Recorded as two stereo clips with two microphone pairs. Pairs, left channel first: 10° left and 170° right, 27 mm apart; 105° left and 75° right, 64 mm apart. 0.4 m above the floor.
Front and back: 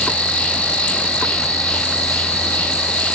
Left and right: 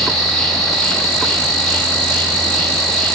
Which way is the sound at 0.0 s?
25° left.